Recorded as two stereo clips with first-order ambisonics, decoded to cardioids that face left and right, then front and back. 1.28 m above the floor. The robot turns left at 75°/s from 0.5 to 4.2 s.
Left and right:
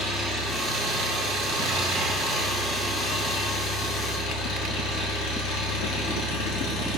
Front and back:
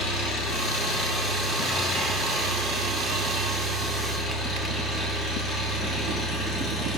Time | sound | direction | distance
0.0 | an engine running | 5° right | 1.5 m